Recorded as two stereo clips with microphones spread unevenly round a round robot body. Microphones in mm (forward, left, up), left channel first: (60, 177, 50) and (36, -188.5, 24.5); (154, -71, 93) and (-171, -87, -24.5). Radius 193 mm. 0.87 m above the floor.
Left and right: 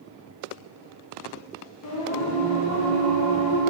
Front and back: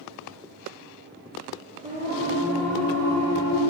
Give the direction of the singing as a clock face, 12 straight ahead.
8 o'clock.